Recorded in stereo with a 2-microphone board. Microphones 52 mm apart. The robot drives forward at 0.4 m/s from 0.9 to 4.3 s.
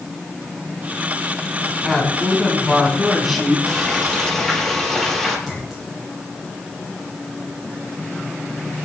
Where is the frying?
5° left (ahead or behind), 4.5 m.